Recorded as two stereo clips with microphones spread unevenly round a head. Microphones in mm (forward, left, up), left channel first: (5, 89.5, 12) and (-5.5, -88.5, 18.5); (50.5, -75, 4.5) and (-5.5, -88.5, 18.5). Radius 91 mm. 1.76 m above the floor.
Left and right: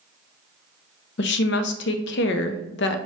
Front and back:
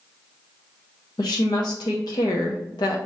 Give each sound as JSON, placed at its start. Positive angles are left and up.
{"t": 1.2, "sound": "a woman speaking", "azimuth_deg": 60, "distance_m": 0.5}